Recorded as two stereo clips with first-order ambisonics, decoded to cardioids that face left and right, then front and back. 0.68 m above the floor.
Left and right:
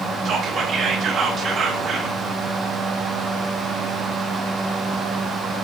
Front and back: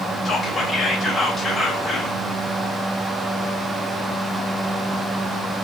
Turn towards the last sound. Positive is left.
turn(degrees=-55)